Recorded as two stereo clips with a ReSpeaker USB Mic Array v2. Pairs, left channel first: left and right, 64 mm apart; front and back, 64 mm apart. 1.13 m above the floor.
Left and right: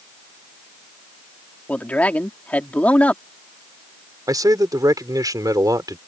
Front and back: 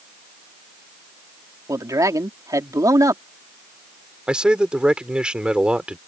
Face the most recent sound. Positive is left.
turn(degrees=-105)